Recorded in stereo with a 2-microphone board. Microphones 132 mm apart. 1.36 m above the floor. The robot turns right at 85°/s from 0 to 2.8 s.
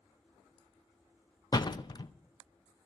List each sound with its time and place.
1.5 s a door slam: 30° left (ahead or behind), 0.6 m